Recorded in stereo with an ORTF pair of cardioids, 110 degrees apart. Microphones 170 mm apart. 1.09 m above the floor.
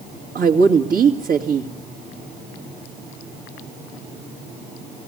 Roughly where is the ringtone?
No ringtone in this recording.